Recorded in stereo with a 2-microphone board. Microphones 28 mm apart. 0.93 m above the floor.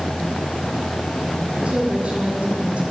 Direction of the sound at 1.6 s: 50° right (ahead or behind).